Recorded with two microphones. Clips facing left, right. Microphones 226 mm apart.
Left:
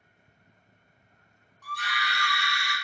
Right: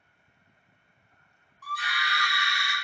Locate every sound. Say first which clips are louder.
1.6 s a scream: left 1 dB; 5° right (ahead or behind), 1.0 m; by 2.7 s 20° right (ahead or behind), 1.0 m